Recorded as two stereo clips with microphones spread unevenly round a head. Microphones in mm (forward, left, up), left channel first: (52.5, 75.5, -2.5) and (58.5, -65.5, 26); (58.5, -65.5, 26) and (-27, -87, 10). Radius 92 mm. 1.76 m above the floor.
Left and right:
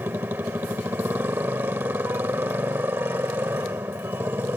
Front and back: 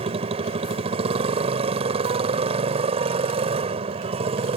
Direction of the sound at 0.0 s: 160° right.